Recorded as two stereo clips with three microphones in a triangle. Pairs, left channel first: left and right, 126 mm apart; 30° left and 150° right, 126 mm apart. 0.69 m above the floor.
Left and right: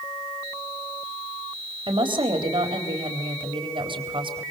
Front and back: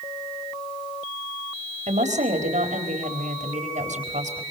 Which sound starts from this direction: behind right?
A woman speaking, at 1.9 s.